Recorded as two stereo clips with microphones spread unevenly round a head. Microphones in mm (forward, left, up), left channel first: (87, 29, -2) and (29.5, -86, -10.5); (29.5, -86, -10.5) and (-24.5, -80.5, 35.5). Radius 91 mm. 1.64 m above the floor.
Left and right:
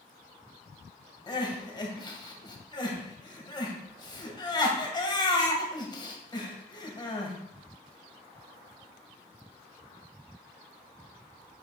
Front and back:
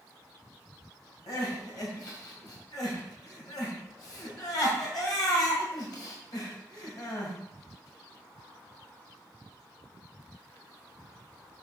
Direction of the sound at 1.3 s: 10° left.